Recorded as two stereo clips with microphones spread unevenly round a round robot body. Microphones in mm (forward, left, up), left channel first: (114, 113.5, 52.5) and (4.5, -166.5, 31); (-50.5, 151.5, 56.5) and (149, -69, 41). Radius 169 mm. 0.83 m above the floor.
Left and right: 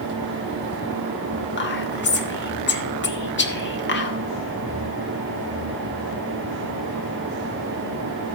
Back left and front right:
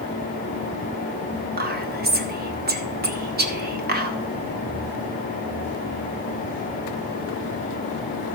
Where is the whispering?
10° left, 2 m.